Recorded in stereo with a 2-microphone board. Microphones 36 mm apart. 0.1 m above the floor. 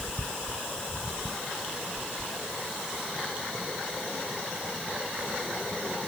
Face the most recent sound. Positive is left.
No sound to turn to.